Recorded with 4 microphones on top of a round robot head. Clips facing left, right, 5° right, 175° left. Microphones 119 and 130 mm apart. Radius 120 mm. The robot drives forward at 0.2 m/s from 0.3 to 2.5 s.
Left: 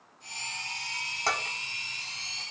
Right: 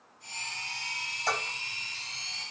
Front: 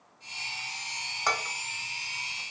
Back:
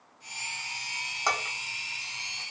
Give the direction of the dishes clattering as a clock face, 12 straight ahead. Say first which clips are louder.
Left 1 dB, even; 9 o'clock.